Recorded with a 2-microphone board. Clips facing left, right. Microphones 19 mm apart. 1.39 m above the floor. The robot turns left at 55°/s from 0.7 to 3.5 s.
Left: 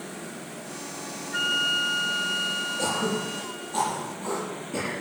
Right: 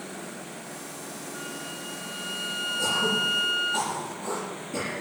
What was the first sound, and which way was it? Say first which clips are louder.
A flute: left 17 dB; 70° left.